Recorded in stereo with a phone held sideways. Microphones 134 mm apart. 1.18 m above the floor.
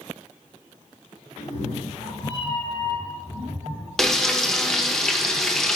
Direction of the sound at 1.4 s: 60° left (ahead or behind).